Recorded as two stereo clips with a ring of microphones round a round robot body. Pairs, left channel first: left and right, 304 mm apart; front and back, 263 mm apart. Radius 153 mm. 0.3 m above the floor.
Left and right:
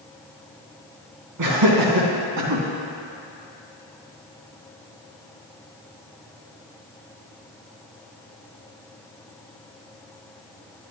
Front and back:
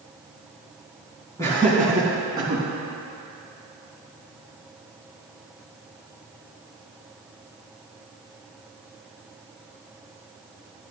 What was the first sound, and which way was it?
Laughter, 80° right.